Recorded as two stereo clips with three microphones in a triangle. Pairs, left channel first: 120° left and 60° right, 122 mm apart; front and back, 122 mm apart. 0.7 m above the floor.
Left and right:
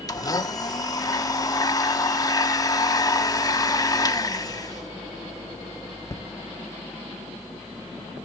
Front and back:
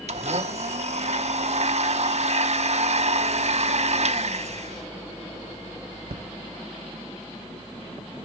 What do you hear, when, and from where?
0.1 s a blender: 175° left, 0.8 m